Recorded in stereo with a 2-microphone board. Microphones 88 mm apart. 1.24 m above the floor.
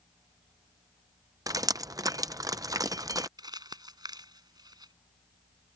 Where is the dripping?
45° right (ahead or behind).